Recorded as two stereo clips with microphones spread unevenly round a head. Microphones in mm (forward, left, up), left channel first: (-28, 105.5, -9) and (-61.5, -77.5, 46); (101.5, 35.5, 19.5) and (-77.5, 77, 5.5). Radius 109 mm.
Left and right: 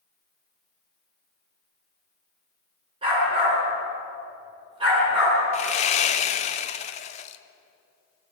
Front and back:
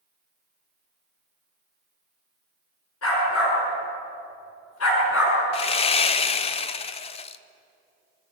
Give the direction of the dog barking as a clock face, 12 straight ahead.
1 o'clock.